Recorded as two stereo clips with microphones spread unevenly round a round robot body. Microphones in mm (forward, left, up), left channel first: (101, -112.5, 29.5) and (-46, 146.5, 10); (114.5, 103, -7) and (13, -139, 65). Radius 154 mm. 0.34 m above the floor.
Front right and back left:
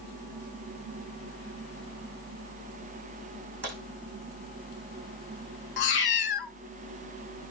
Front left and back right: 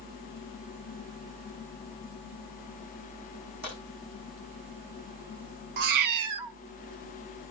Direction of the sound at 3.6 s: 175° left.